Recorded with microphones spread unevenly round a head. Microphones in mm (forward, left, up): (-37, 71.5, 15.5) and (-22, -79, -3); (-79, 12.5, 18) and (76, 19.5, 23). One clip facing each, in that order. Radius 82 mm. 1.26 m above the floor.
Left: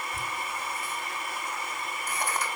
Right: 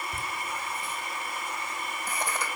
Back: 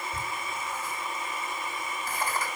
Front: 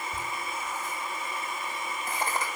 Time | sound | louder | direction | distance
0.1 | laughter | even, even | 70° right | 2 m